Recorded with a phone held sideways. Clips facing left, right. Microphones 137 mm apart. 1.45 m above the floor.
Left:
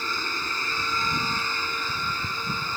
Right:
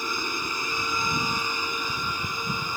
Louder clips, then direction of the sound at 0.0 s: Right 1 dB; 15° right (ahead or behind).